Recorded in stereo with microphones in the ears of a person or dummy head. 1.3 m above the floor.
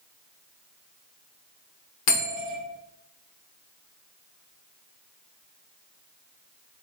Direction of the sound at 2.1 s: 65° left (ahead or behind).